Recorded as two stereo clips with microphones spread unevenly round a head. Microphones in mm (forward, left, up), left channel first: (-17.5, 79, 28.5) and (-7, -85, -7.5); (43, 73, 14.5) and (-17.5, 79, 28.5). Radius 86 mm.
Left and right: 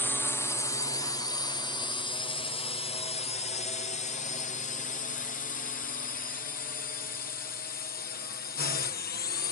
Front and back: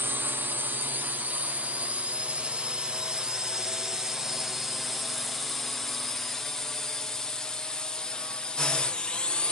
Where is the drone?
175° right; by 9.5 s 60° left.